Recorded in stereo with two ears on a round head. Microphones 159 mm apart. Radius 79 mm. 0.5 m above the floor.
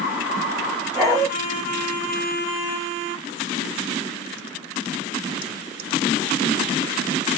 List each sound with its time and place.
0.9 s a dog barking: 20° left (ahead or behind), 4 m